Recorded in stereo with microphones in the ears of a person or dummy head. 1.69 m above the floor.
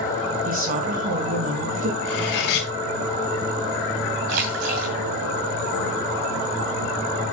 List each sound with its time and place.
0.5 s a woman speaking: 45° right (ahead or behind), 2.5 m
2.0 s cutlery clinking: 70° left (ahead or behind), 2.5 m
4.3 s a splash: 50° right (ahead or behind), 2 m